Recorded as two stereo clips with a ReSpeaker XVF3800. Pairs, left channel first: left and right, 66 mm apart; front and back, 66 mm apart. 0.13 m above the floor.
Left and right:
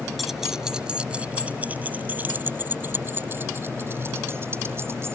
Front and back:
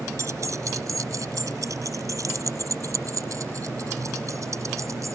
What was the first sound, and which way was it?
Keys jangling, straight behind.